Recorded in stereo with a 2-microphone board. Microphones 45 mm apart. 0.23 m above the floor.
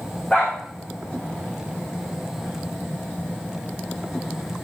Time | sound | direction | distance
0.3 | a dog barking | 30° left (ahead or behind) | 7.5 m